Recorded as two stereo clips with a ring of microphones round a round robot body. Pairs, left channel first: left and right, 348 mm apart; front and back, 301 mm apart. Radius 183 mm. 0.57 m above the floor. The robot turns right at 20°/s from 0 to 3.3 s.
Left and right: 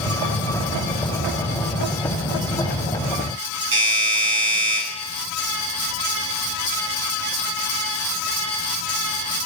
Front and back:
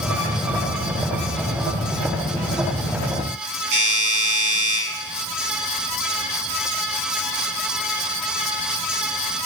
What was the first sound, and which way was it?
A doorbell, 145° right.